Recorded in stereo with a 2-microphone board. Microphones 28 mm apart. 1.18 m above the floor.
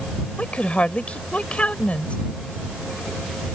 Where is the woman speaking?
45° left (ahead or behind).